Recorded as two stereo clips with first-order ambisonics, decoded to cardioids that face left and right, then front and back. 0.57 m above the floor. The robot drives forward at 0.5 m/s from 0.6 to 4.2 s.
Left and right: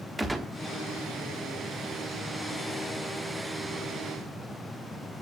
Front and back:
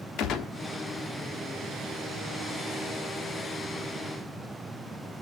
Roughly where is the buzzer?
No buzzer in this recording.